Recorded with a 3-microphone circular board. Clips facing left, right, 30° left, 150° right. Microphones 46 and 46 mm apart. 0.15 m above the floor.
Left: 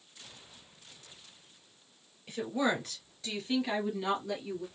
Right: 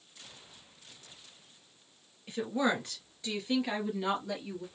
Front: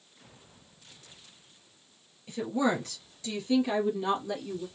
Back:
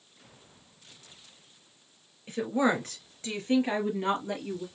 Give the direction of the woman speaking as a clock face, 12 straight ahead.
5 o'clock.